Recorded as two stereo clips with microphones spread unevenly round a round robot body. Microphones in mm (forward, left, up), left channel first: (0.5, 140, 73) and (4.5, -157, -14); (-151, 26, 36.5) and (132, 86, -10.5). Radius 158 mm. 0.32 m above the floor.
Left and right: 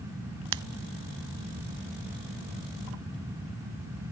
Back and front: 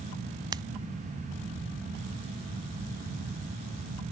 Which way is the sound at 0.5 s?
65° right.